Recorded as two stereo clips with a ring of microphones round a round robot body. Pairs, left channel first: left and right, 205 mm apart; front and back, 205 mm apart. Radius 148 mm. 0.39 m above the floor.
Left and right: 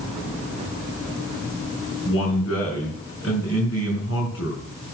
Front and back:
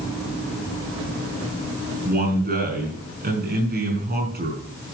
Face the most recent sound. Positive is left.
turn(degrees=135)